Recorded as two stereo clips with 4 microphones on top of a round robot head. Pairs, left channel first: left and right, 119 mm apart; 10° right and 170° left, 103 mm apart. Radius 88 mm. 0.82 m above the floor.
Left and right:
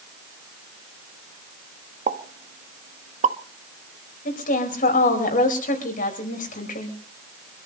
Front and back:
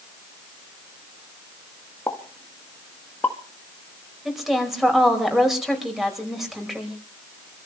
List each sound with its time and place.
2.1 s a pop: 80° right, 1.2 m
4.2 s a woman speaking: 85° left, 5 m